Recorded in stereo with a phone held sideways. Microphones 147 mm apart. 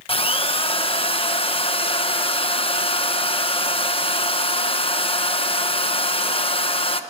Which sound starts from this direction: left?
A drill, at 0.1 s.